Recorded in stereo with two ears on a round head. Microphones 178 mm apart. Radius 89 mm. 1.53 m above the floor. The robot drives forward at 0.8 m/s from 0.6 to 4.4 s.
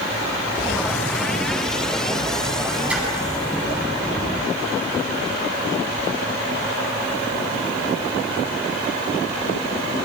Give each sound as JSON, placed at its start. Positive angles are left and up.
{"t": 2.9, "sound": "a splash", "side_deg": -5, "distance_m": 9.5}